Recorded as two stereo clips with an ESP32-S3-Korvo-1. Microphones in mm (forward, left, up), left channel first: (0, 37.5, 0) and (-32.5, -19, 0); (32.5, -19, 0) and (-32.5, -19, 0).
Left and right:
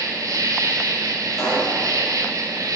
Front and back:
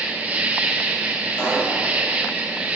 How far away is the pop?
About 3.5 m.